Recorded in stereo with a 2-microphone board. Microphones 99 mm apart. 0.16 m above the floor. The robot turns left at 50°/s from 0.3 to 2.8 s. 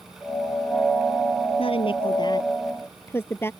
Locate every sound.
1.6 s a woman speaking: 70° left (ahead or behind); by 3.5 s 25° left (ahead or behind)